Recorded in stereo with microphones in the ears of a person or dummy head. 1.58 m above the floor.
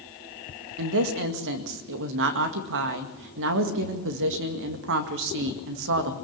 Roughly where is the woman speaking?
Right.